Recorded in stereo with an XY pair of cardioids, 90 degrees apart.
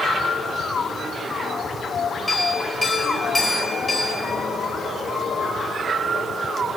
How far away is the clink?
About 3 m.